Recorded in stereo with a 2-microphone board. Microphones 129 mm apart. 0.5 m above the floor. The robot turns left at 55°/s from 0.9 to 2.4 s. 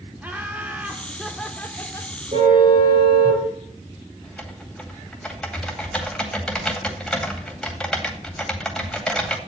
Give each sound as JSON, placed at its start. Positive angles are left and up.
{"t": 0.2, "sound": "laughter", "azimuth_deg": -160, "distance_m": 1.4}
{"t": 2.3, "sound": "a car horn", "side_deg": -45, "distance_m": 6.0}
{"t": 4.2, "sound": "typing on a keyboard", "side_deg": 5, "distance_m": 2.0}